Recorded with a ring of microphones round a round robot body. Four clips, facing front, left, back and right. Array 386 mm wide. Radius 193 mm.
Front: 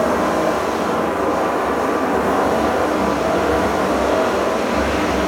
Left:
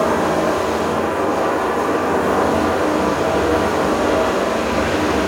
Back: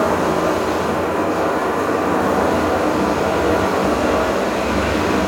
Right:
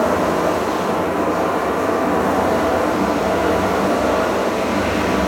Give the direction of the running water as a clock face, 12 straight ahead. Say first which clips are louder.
Even, even; 6 o'clock.